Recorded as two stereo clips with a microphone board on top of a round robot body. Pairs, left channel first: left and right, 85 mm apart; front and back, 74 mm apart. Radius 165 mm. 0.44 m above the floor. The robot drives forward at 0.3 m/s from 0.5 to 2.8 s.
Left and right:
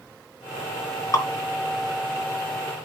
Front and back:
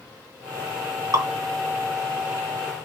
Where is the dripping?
140° left, 3.5 m.